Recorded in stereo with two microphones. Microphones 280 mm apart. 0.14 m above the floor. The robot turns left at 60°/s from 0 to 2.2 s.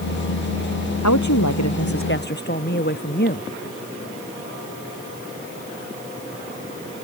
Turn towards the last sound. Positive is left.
turn(degrees=35)